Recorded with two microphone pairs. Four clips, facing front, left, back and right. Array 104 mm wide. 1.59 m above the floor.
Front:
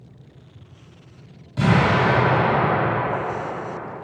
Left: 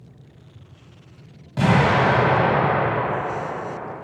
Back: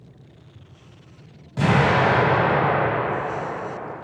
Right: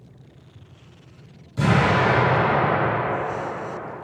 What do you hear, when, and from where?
1.6 s an explosion: 105° left, 2.0 m